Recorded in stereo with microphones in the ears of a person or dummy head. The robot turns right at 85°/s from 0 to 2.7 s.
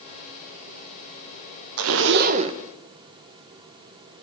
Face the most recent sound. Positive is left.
turn(degrees=-10)